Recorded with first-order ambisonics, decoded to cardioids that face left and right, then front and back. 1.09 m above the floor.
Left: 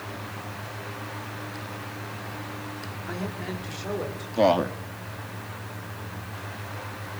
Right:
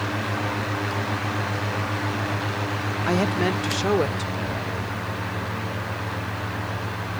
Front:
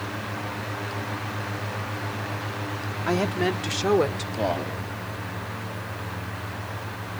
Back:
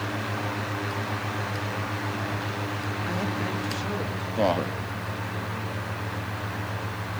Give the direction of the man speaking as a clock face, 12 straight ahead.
8 o'clock.